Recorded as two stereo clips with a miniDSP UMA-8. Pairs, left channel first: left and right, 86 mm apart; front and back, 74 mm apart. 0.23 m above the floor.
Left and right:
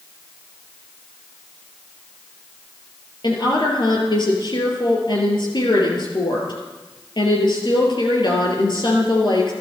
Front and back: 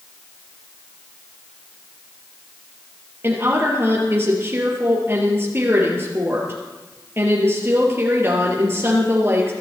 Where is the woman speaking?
120° left, 4.5 m.